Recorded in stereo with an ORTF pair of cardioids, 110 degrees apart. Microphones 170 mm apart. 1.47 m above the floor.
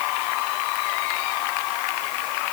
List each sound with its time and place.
Only background noise.